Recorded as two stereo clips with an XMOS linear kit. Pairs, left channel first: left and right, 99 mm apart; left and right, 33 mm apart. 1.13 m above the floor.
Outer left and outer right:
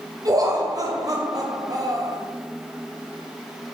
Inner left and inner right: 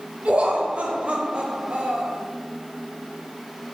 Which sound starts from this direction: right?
Laughter, at 0.2 s.